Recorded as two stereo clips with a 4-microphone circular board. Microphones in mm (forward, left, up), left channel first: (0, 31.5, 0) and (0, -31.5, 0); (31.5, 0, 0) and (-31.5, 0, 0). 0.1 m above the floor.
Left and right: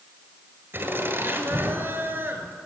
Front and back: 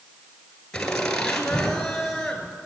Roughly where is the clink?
No clink in this recording.